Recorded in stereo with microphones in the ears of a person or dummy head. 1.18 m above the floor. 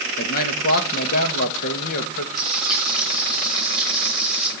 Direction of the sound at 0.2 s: 50° left (ahead or behind).